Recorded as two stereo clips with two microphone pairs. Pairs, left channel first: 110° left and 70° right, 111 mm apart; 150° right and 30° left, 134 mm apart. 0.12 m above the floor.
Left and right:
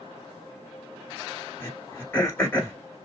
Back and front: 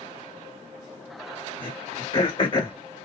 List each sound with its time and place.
1.6 s throat clearing: 170° left, 1.5 m